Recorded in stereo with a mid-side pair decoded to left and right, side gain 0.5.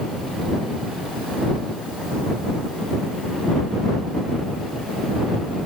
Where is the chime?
No chime in this recording.